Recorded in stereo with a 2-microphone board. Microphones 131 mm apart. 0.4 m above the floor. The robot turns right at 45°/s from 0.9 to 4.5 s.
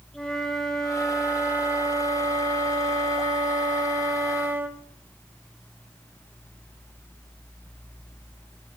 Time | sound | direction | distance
0.1 | a flute | 170° left | 1.1 m